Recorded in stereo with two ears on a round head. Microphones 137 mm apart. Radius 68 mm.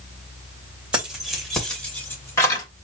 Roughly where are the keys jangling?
Centre.